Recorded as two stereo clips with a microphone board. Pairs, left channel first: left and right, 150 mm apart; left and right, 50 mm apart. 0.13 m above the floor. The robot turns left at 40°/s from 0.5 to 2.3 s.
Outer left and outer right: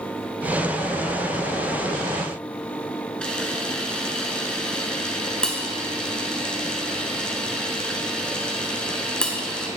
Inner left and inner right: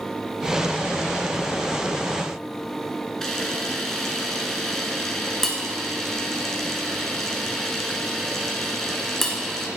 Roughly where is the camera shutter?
Centre.